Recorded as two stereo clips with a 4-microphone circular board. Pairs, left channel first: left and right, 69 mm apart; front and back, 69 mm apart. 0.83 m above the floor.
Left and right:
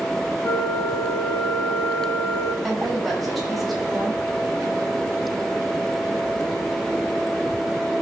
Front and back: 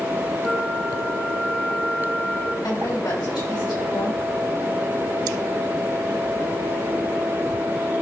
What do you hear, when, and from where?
0.4 s a flute: 75° left, 1.8 m
2.6 s a woman speaking: straight ahead, 4.5 m